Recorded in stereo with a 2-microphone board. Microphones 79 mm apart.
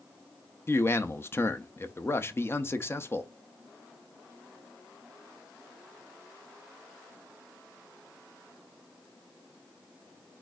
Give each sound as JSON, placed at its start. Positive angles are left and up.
{"t": 0.7, "sound": "a man speaking", "side_deg": 30, "distance_m": 0.6}